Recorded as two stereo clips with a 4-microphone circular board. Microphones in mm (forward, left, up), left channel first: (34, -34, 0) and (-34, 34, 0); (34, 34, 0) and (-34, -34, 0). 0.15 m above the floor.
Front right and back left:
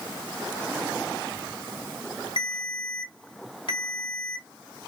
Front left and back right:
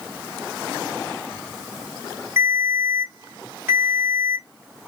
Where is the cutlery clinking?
I don't hear cutlery clinking.